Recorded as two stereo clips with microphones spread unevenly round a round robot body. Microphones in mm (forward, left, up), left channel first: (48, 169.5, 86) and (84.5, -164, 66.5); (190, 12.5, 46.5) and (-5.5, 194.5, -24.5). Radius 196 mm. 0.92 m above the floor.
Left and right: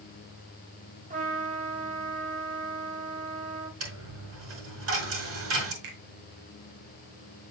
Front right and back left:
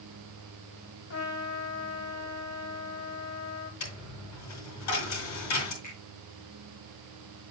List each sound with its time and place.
1.1 s a trumpet: 15° right, 2.5 m
3.8 s a dropped coin: 35° right, 4.5 m
5.8 s a finger snap: 115° right, 3 m